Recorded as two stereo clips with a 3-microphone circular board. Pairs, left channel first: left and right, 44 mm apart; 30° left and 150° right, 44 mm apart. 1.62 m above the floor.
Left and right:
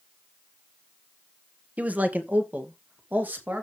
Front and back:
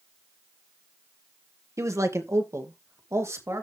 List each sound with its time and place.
1.8 s a man speaking: 150° right, 1.7 m; by 3.6 s 145° right, 3.5 m